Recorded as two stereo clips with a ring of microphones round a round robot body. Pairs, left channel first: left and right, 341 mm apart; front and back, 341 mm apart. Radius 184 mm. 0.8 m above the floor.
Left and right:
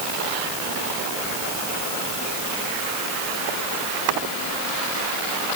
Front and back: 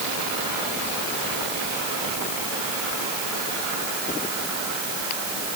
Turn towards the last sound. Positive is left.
No sound to turn to.